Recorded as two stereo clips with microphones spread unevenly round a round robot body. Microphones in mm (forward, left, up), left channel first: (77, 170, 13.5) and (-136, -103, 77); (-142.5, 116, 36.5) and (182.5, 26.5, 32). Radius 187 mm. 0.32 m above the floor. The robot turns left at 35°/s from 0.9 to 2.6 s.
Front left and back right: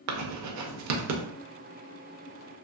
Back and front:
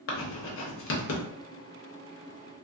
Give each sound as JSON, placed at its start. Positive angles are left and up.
{"t": 0.1, "sound": "writing", "azimuth_deg": -160, "distance_m": 0.6}